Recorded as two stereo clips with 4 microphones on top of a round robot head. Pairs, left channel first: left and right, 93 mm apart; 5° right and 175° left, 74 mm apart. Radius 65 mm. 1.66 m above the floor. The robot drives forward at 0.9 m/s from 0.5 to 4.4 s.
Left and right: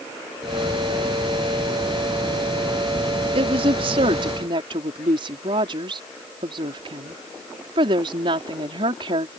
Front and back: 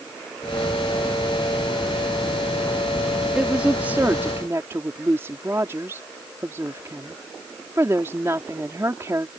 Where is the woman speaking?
105° right; by 9.3 s 120° right.